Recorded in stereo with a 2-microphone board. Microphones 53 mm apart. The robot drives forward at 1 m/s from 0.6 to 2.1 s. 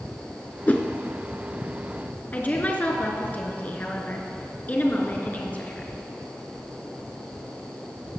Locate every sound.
0.7 s a whoosh: 30° left (ahead or behind), 0.9 m
2.3 s a woman speaking: 30° left (ahead or behind), 1.5 m